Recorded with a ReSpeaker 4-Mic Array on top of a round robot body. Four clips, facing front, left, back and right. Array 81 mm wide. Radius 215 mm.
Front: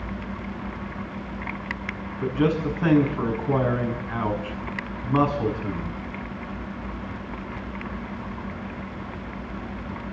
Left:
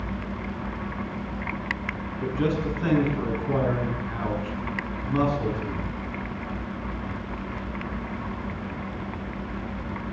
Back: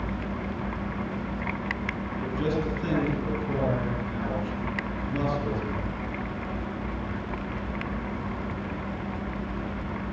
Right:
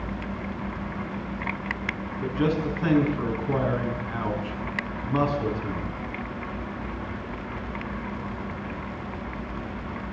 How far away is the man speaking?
About 6 m.